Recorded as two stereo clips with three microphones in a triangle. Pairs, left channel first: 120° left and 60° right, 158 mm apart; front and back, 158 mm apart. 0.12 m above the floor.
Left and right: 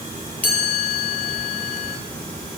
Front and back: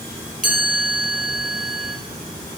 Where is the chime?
160° right, 1.9 m.